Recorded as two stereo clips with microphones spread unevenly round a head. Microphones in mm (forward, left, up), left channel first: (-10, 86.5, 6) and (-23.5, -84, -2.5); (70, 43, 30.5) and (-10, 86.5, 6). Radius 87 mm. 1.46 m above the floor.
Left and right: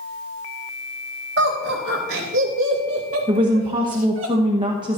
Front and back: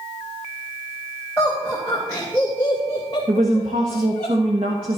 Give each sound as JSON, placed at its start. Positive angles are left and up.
{"t": 1.4, "sound": "laughter", "azimuth_deg": -125, "distance_m": 3.0}
{"t": 3.3, "sound": "a woman speaking", "azimuth_deg": -160, "distance_m": 1.2}